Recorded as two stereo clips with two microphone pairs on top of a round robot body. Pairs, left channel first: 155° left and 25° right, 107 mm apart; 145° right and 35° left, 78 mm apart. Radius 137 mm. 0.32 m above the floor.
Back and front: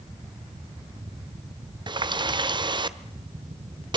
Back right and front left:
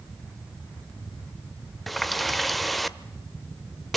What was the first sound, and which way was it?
A running tap, 60° right.